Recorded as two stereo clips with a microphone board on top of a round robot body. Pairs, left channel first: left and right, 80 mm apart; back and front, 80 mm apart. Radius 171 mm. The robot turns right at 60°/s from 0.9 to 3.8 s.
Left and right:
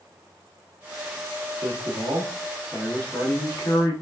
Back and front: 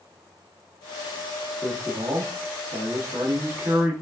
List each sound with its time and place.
1.6 s a man speaking: 60° right, 1.1 m; by 3.9 s 70° left, 1.1 m